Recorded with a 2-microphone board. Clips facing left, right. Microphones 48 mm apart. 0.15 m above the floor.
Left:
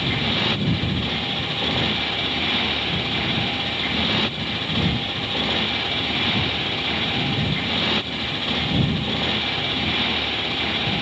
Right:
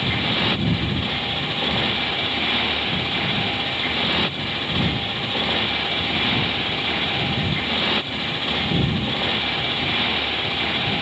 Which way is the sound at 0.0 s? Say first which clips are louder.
Right 1 dB; 10° right (ahead or behind).